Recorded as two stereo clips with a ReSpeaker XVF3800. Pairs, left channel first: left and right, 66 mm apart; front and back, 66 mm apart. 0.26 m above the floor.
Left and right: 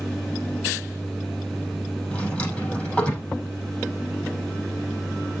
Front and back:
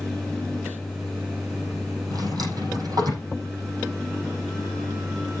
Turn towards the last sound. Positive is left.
turn(degrees=160)